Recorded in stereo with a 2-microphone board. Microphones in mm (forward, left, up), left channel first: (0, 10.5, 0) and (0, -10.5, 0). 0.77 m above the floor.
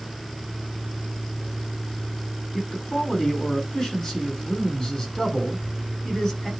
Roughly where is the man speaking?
Centre.